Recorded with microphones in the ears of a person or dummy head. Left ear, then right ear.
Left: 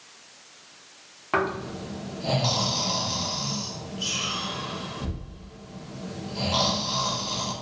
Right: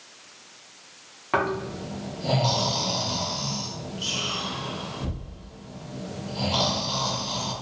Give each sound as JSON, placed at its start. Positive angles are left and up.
{"t": 1.3, "sound": "snoring", "side_deg": 0, "distance_m": 0.6}